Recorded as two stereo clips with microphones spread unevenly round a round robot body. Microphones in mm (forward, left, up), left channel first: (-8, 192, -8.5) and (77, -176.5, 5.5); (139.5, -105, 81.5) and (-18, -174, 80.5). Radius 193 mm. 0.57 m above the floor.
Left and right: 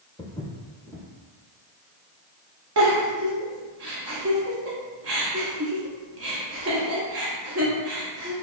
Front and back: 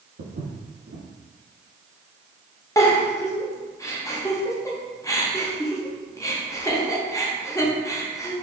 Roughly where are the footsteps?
Behind.